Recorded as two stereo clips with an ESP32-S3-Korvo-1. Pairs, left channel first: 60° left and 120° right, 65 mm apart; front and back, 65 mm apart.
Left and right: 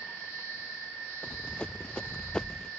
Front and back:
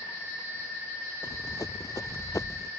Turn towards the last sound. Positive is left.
turn(degrees=-20)